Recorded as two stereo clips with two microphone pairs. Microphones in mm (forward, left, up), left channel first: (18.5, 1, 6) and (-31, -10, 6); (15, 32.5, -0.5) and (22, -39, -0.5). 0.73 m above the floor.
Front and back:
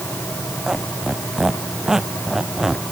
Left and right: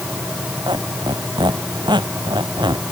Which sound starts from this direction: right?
A squeak, at 0.7 s.